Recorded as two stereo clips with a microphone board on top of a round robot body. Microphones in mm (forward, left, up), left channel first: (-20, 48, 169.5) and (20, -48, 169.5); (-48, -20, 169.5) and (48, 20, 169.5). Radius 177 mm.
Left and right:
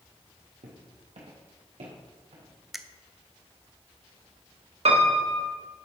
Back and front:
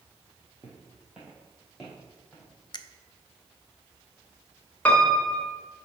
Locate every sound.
0.6 s footsteps: 45° right, 1.3 m; by 2.5 s 70° right, 3 m
2.7 s a finger snap: 155° right, 0.7 m
4.8 s a piano: 80° right, 1.3 m